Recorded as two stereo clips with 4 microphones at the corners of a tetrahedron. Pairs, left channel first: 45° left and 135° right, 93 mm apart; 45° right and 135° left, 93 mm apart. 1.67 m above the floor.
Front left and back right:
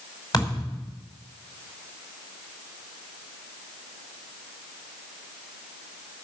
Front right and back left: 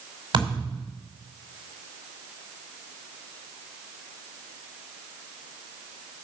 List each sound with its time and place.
0.3 s a thud: 95° left, 5.5 m